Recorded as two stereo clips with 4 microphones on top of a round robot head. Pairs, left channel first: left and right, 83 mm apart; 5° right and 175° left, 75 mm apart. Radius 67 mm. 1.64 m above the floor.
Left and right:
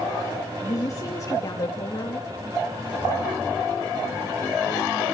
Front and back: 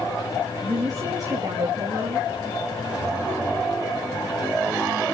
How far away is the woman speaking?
About 2.5 m.